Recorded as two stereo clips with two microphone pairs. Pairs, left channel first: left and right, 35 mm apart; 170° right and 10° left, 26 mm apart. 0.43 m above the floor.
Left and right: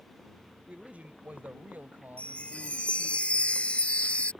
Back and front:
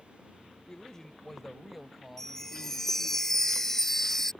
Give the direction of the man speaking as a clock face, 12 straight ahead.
4 o'clock.